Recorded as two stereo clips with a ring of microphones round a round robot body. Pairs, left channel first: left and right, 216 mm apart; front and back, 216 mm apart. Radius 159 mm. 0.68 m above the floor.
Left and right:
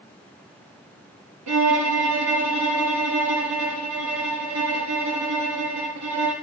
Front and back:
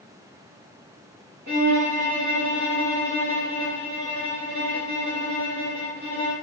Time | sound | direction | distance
1.5 | a violin | 120° right | 1.3 m